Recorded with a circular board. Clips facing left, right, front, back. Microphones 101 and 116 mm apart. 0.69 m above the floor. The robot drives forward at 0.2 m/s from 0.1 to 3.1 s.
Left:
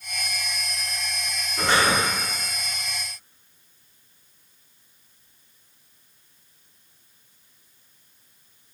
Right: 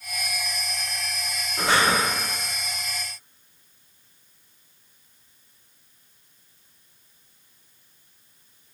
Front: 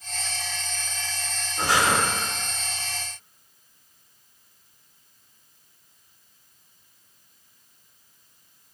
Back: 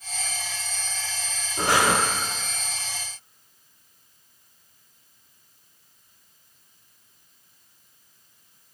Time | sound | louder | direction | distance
1.6 | breathing | even, back 1 dB | 165° right | 0.8 m